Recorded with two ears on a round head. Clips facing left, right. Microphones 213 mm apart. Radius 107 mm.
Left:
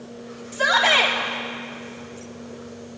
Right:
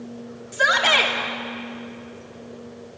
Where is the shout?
15° right (ahead or behind), 3.5 m.